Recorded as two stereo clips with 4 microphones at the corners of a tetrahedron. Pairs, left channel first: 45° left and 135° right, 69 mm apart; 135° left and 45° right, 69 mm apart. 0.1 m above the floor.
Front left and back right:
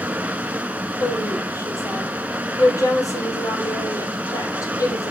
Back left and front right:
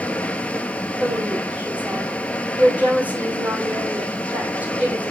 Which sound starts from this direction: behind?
Running water, at 0.0 s.